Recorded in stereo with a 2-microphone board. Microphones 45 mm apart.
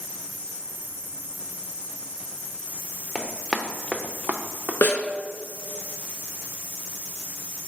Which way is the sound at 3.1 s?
10° left (ahead or behind).